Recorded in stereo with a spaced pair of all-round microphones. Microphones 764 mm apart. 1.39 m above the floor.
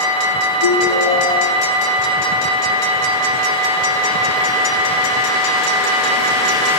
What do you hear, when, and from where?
0.6 s a ringtone: 40° left (ahead or behind), 7.5 m